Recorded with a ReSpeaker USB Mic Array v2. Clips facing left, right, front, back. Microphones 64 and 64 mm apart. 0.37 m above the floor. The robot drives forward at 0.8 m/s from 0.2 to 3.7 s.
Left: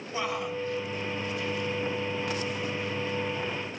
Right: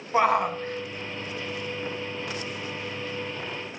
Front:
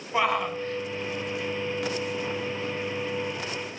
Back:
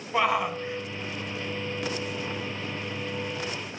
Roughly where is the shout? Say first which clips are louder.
Right 9 dB, even; right.